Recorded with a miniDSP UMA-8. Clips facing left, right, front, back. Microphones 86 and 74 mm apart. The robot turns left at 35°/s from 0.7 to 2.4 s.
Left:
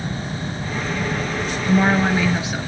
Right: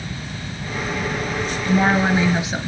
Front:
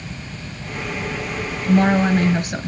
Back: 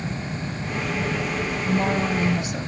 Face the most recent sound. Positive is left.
turn(degrees=-20)